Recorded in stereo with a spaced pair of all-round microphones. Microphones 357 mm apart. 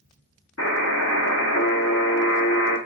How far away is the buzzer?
About 0.9 m.